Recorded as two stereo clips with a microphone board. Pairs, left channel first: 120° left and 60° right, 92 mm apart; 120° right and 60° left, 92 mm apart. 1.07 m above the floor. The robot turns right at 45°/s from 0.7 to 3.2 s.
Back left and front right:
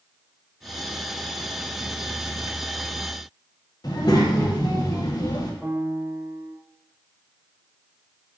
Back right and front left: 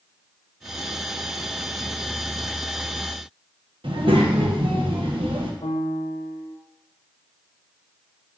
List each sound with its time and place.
3.8 s a child speaking: 75° left, 0.9 m
5.6 s a piano: 145° right, 0.6 m